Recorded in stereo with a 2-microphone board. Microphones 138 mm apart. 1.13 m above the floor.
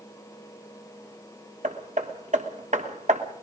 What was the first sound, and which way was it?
Hammering, 60° right (ahead or behind).